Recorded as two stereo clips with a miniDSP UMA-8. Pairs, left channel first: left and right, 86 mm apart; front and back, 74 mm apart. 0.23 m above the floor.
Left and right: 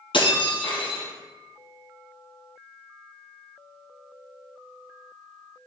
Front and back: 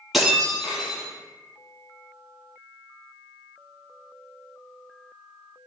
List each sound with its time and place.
0.1 s breaking glass: 95° left, 3 m